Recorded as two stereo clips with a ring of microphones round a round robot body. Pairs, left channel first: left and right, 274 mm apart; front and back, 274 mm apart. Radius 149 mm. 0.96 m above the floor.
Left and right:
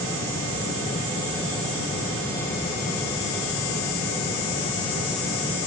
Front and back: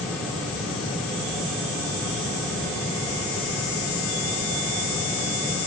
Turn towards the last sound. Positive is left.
No sound to turn to.